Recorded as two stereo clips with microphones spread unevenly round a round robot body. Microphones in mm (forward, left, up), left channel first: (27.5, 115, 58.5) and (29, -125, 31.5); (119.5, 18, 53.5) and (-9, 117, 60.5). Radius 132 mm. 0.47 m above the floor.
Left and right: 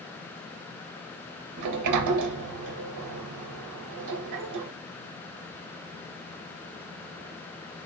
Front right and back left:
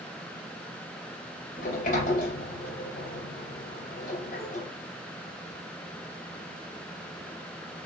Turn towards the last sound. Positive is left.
turn(degrees=-90)